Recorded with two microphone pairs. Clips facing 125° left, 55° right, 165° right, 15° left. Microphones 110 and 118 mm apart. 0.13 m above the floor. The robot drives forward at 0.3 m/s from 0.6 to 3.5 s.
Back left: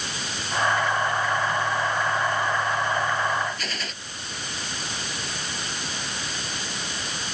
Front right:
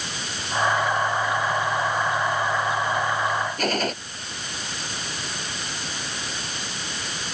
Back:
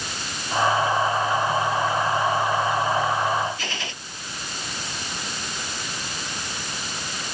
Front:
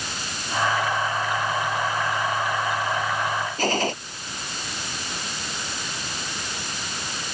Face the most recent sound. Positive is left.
turn(degrees=-25)